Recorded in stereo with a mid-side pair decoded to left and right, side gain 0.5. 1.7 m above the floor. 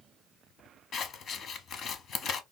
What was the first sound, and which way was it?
Scissors, 55° left.